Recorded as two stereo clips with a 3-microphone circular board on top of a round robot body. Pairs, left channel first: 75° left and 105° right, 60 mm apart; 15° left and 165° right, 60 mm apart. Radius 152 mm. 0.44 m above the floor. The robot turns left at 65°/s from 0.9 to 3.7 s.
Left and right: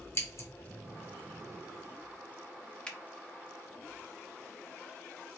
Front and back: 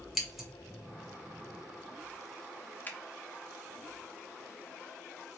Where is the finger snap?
15° left, 0.9 m; by 3.0 s 10° left, 0.9 m.